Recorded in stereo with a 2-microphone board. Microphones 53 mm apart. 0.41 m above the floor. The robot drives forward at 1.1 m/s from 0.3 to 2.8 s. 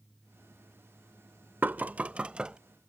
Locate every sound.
1.6 s knocking: 40° right (ahead or behind); by 2.6 s 15° right (ahead or behind)